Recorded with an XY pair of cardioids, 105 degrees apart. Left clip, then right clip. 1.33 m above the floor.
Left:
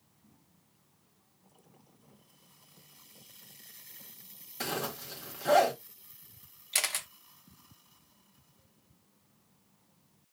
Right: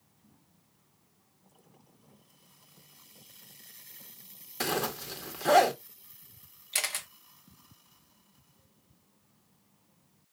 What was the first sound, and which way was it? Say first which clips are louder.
A zipper: right 4 dB; 35° right.